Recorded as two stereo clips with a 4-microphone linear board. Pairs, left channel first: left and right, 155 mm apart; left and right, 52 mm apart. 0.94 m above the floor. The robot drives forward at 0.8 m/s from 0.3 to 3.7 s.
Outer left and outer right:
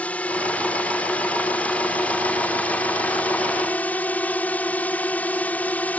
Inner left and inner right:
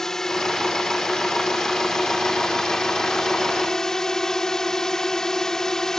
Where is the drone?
10° left (ahead or behind).